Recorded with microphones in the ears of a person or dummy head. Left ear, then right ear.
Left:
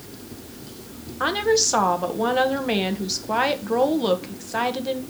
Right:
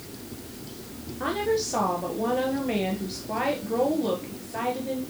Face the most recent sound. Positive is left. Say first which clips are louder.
# left 6 dB
turn(degrees=55)  # may be behind; listen again after turning